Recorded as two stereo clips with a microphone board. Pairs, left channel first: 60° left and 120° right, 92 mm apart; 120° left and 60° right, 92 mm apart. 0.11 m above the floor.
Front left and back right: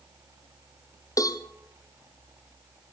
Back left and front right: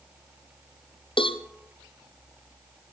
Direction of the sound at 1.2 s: 105° left.